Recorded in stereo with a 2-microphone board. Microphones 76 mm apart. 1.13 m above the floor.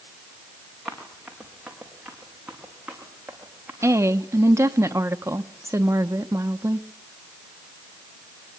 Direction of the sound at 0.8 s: 5° right (ahead or behind).